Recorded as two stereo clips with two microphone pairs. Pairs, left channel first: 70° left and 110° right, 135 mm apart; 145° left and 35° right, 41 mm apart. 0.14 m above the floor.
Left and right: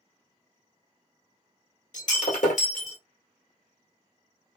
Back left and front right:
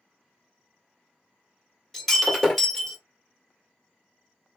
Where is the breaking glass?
65° left, 1.3 m.